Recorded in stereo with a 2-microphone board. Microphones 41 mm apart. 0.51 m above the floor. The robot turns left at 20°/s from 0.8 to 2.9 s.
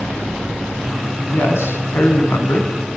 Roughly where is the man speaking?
Left.